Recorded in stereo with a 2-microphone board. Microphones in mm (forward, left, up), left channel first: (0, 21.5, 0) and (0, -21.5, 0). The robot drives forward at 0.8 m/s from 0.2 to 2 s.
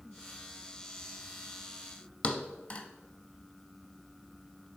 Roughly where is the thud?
Left.